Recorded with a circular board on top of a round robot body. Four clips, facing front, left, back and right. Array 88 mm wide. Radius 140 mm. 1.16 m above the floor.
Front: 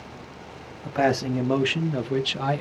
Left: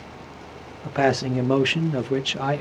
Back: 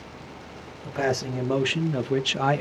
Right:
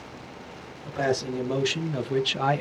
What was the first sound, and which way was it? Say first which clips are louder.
A man speaking: left 5 dB, front 4 dB; 70° left.